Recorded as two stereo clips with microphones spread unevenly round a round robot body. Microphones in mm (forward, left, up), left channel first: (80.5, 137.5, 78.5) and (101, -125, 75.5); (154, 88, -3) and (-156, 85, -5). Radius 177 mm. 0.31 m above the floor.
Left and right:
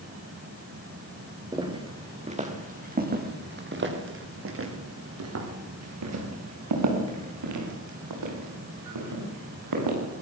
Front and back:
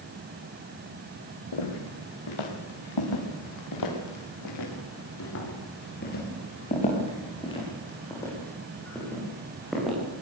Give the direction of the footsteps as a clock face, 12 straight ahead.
12 o'clock.